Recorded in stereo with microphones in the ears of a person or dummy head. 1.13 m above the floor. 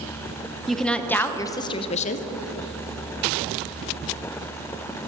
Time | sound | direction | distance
0.7 | a woman speaking | 5° left (ahead or behind) | 1.1 m